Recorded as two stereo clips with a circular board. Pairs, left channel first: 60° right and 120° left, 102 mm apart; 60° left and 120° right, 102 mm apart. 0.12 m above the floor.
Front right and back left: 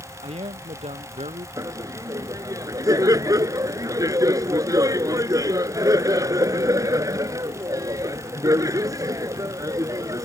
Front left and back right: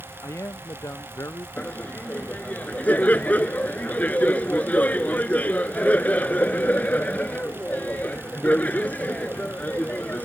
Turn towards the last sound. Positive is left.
turn(degrees=125)